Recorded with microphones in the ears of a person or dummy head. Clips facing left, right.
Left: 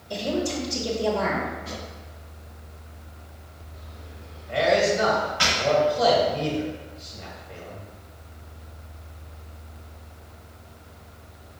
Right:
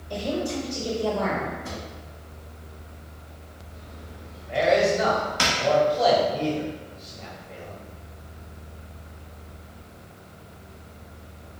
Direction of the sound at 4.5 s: 5° left (ahead or behind).